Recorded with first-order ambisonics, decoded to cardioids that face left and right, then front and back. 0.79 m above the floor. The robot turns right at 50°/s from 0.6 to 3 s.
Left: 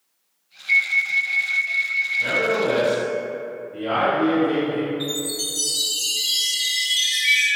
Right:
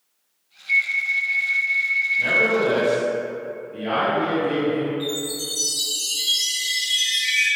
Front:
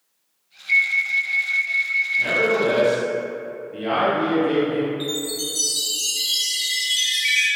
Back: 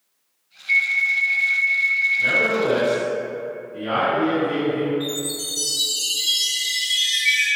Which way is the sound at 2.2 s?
60° right.